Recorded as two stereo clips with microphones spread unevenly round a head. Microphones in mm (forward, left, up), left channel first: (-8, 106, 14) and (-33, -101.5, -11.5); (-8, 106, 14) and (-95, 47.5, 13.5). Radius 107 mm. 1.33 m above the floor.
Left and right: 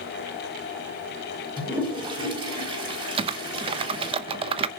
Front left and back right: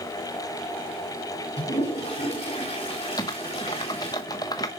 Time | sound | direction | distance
1.6 | a toilet flushing | 25° right | 3.5 m
3.2 | typing on a keyboard | 30° right | 0.6 m